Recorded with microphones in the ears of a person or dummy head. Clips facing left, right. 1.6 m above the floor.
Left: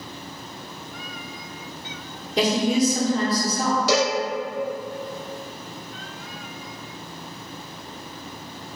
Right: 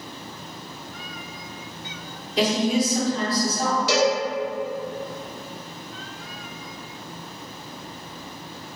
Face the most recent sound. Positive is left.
turn(degrees=40)  # may be behind; listen again after turning